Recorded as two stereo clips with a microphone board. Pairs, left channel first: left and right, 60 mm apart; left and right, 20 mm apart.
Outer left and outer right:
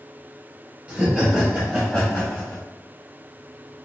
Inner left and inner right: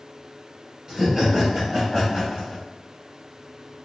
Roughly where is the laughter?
Right.